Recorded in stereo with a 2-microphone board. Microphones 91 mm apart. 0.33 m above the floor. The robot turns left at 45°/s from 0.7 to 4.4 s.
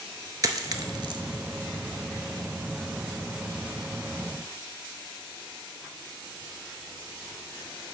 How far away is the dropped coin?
About 0.5 m.